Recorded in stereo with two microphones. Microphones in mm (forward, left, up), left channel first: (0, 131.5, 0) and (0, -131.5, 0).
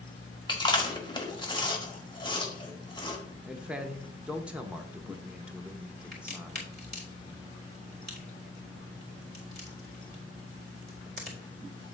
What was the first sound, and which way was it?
Chewing, 20° left (ahead or behind).